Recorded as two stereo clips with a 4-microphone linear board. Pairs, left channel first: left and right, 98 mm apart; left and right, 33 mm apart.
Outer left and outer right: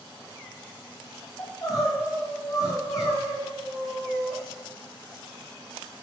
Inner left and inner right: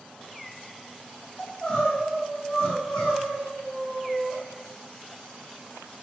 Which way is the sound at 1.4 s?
35° left (ahead or behind).